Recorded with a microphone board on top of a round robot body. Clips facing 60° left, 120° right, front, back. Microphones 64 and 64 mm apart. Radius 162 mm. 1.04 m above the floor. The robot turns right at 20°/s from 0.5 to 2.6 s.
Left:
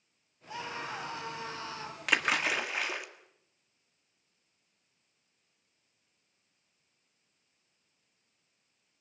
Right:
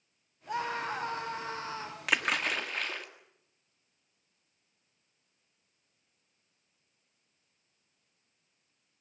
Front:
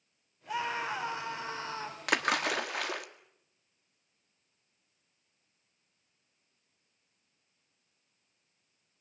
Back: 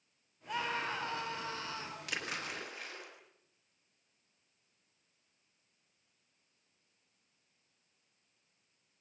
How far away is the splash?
About 1.9 m.